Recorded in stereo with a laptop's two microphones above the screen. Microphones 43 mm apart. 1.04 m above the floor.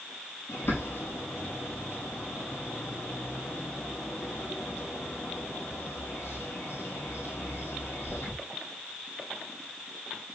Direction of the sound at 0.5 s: 60° left (ahead or behind).